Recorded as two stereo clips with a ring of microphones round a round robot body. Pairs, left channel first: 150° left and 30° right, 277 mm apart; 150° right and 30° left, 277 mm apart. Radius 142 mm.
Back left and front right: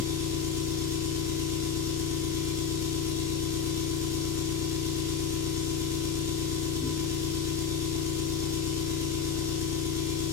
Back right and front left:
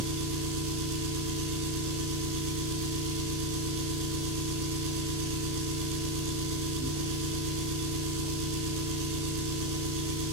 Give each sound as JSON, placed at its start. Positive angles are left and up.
{"t": 0.0, "sound": "an engine running", "azimuth_deg": 50, "distance_m": 1.3}